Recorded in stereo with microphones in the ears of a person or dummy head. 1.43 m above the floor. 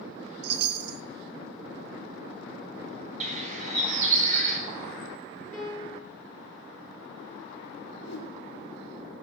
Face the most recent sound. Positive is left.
turn(degrees=80)